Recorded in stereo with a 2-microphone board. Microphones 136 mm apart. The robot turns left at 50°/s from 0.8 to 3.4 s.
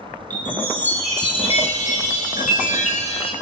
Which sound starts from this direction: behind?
A chime, at 0.3 s.